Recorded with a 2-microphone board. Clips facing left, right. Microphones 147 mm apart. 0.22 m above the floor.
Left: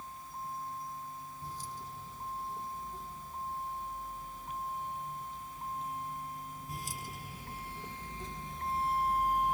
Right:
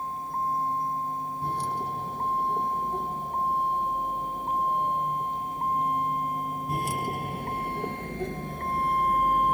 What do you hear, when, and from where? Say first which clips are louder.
0.0 s a vehicle: right 13 dB; 70° right (ahead or behind); by 9.5 s 60° right (ahead or behind)